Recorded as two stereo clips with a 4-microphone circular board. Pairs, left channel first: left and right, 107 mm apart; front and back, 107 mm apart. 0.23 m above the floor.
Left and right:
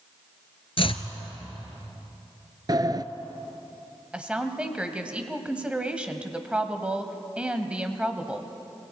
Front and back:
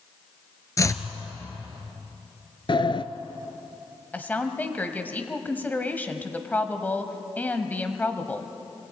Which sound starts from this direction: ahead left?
Chopping, at 0.8 s.